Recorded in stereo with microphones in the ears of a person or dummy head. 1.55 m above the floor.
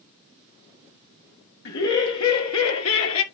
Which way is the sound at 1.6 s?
70° left (ahead or behind).